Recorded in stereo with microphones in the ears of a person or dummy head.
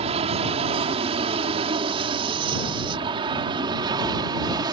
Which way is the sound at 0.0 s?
30° right (ahead or behind).